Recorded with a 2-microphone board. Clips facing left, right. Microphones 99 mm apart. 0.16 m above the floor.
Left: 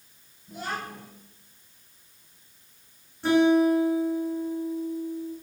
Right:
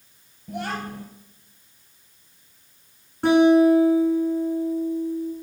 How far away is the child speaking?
About 2.5 m.